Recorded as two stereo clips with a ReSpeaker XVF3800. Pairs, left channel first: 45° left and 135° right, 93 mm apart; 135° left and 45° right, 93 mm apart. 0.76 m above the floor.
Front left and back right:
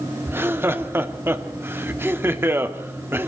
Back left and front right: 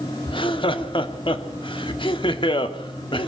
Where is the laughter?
160° left, 1.5 m.